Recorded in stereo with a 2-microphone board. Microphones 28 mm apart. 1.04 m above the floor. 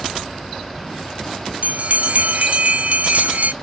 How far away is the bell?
About 0.7 m.